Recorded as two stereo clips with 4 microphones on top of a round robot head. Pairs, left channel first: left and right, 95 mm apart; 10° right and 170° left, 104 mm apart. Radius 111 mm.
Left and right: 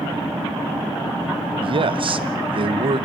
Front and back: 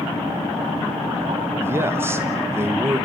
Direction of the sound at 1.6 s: 120° right.